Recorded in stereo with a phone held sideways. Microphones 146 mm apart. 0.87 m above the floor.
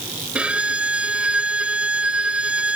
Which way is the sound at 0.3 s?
10° right (ahead or behind).